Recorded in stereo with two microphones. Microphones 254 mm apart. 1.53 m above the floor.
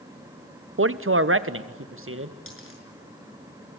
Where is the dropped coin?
55° left (ahead or behind), 6.5 m.